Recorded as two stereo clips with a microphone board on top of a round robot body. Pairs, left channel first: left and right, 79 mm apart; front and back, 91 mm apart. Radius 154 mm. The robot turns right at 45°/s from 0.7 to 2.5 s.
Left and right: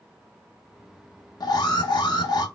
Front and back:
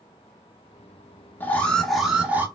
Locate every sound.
1.4 s an alarm: 65° left, 0.8 m; by 2.5 s 115° left, 0.8 m